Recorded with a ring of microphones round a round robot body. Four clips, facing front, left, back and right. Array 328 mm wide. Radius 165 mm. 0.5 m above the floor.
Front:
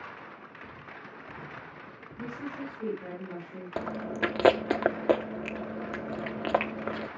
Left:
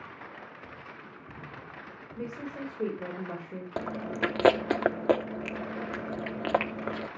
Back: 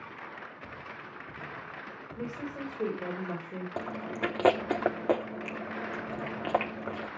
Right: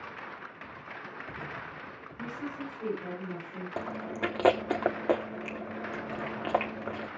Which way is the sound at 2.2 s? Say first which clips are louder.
Left 1 dB, even; 125° left.